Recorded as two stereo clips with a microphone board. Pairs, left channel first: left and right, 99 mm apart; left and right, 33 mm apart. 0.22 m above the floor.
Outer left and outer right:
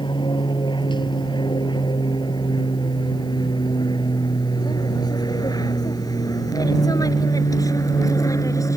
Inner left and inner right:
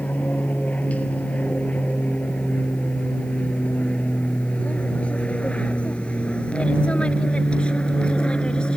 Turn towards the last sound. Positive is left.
turn(degrees=35)  # may be behind; listen again after turning